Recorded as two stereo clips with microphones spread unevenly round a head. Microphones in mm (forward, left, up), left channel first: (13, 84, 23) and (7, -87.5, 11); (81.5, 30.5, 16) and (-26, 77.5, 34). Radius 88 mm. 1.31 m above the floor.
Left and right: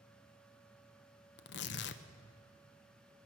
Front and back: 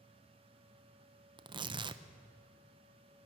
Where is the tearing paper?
110° left, 0.6 m.